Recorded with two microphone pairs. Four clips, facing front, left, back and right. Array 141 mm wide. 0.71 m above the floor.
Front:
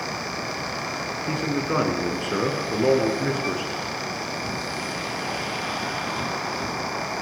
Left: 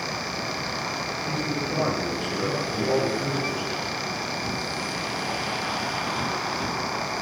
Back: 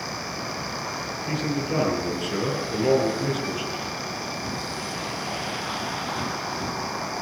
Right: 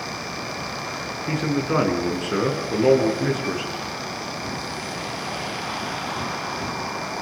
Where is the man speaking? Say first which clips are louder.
Right 8 dB, front 2 dB; 45° right, 8.5 m; by 3.7 s 40° right, 10 m.